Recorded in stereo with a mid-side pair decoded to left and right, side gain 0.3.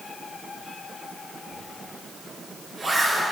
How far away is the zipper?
About 4 m.